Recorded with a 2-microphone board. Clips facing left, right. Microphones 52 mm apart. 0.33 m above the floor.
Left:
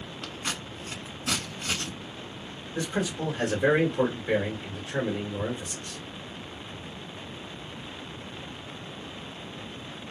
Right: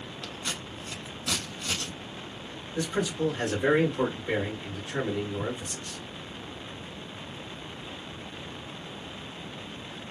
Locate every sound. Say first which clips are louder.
0.2 s scissors: left 2 dB; 40° left (ahead or behind), 0.9 m
2.8 s a man speaking: right 1 dB; 20° left (ahead or behind), 1.4 m